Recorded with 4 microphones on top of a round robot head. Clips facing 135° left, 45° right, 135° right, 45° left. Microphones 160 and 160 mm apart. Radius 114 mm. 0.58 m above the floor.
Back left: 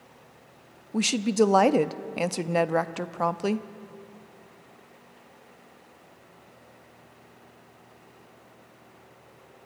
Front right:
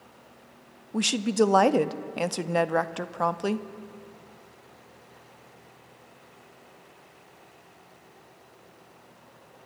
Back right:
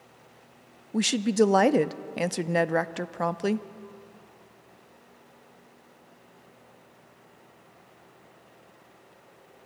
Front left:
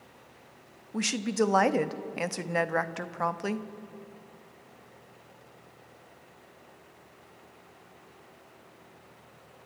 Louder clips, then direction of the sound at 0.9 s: Back left 1 dB, back right 5 dB; 140° right.